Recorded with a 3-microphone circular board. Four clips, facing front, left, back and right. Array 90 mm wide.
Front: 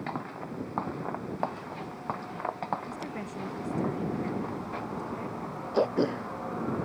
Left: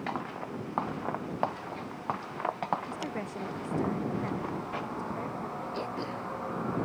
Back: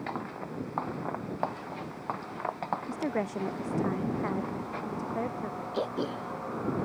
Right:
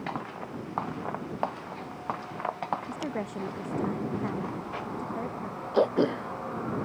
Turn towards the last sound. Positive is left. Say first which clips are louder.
# right 16 dB, front 7 dB
turn(degrees=-75)